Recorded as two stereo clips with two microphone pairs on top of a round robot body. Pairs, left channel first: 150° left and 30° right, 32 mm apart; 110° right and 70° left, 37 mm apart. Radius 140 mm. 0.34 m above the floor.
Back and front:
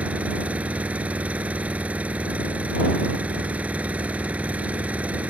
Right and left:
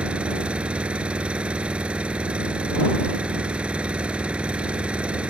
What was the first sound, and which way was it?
An engine running, 15° left.